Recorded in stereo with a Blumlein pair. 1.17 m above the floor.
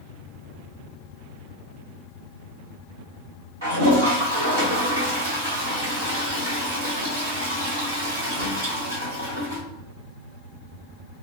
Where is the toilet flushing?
65° right, 1.4 m.